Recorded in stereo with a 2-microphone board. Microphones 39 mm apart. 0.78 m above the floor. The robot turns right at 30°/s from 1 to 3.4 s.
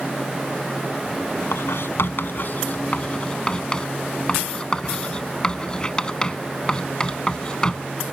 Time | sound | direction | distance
1.5 | writing | 75° left (ahead or behind) | ?